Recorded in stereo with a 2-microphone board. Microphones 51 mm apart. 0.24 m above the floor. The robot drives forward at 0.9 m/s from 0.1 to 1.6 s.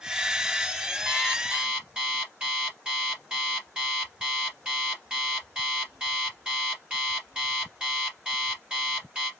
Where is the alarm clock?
15° right (ahead or behind), 2.5 m.